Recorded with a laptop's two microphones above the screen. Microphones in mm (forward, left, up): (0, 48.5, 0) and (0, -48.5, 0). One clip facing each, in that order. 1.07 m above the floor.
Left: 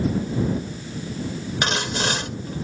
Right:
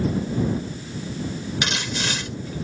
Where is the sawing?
40° left (ahead or behind).